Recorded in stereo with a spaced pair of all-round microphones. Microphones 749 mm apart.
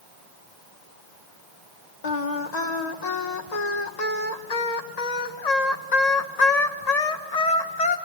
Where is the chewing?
I don't hear chewing.